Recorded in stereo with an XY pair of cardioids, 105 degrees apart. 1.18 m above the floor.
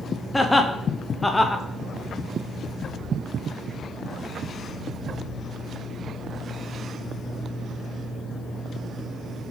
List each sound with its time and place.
0.3 s laughter: 15° left, 0.6 m